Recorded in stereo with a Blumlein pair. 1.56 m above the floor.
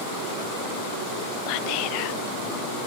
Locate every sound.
1.5 s whispering: 45° left